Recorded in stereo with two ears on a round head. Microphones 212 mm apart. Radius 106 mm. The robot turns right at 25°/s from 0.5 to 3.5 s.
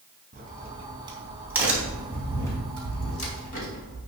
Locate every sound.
0.3 s a crack: 35° right (ahead or behind), 3.5 m; by 4.0 s 40° left (ahead or behind), 3.5 m